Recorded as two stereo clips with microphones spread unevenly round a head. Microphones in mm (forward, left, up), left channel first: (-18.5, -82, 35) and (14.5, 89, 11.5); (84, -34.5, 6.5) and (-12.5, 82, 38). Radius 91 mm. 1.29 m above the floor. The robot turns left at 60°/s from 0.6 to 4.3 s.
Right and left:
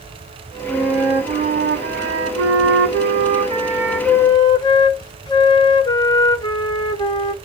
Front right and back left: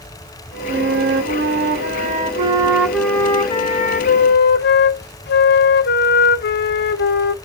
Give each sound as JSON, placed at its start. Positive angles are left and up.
{"t": 0.7, "sound": "a flute", "azimuth_deg": 180, "distance_m": 1.4}